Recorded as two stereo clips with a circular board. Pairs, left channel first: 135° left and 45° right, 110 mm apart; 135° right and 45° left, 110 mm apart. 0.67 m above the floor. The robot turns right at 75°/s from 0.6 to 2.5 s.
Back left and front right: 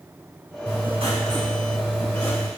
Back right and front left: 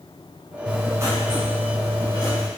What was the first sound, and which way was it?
Writing, 40° right.